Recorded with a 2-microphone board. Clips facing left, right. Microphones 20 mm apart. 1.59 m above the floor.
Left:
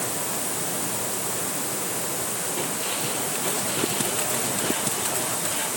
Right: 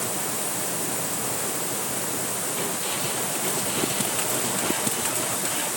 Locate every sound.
Only background noise.